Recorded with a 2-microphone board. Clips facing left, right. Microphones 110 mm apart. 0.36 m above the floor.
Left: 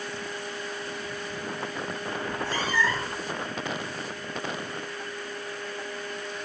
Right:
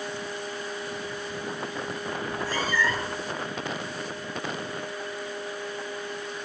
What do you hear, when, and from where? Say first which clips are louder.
2.2 s a cat meowing: even; 20° left (ahead or behind), 1.8 m